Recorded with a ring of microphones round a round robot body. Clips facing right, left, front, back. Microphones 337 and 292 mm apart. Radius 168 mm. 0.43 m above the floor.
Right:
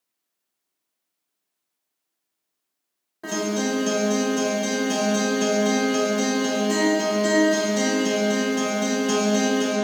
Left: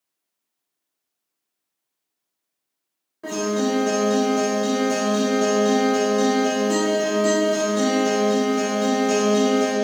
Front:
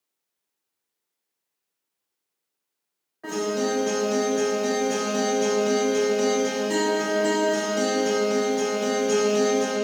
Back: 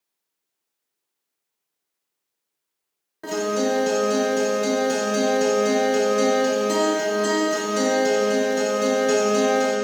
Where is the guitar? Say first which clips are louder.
Left 3 dB, back 2 dB; 170° right, 1.5 m.